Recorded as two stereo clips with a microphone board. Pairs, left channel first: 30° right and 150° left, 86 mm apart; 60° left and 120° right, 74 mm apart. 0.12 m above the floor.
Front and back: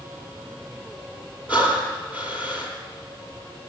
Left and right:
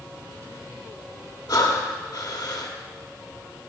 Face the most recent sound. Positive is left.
turn(degrees=80)